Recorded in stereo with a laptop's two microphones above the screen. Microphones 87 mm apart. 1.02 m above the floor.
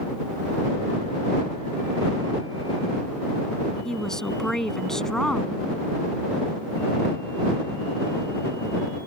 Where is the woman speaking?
5° left (ahead or behind).